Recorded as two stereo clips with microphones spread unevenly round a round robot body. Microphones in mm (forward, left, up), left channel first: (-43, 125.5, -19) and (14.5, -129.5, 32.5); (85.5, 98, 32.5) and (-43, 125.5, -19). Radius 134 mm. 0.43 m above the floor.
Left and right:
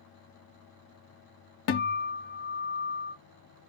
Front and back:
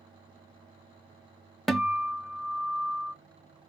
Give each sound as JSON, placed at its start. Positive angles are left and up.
{"t": 1.7, "sound": "a guitar", "azimuth_deg": 80, "distance_m": 0.7}